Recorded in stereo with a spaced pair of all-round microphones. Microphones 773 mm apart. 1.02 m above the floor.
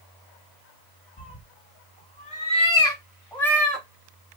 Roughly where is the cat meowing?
Centre.